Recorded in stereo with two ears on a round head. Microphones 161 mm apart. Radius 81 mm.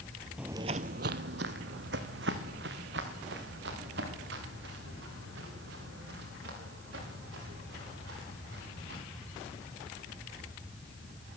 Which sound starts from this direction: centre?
Footsteps, at 0.4 s.